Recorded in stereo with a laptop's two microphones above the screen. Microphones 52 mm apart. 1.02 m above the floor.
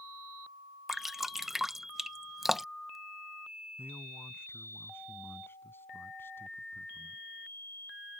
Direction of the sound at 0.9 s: 5° right (ahead or behind).